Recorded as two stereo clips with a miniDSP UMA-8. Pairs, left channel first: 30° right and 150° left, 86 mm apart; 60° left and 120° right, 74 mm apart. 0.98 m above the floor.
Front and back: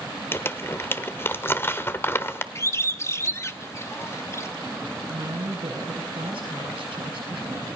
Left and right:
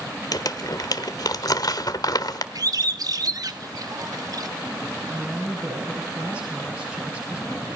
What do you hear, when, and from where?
0.3 s crumpling: 30° left, 1.3 m
2.5 s a bird: 90° right, 1.2 m
5.1 s a woman speaking: 160° left, 8.5 m